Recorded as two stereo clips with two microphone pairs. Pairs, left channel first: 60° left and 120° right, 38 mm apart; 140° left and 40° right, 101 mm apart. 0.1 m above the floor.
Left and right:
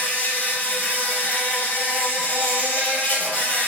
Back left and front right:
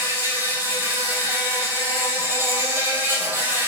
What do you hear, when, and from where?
0.0 s an insect: 25° left, 2.0 m